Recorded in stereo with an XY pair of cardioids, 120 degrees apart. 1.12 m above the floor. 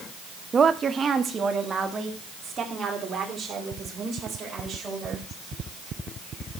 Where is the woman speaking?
30° right, 0.7 m; by 5.2 s 35° right, 4.5 m.